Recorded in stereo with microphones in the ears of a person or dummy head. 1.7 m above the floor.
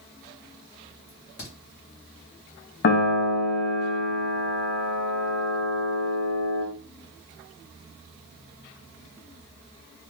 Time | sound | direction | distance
1.1 | a crack | 50° left (ahead or behind) | 1.2 m
2.8 | a piano | 50° left (ahead or behind) | 0.7 m